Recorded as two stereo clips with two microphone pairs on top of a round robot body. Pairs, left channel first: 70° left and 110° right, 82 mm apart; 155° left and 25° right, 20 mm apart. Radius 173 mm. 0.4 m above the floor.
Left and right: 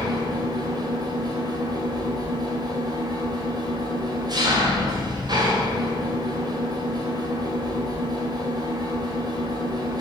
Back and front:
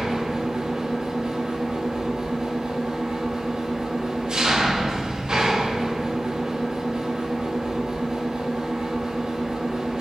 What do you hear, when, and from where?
0.0 s an engine running: 80° right, 1.6 m